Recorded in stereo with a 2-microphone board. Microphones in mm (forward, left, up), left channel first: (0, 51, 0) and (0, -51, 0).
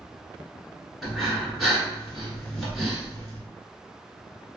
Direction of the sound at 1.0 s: Centre (ahead or behind).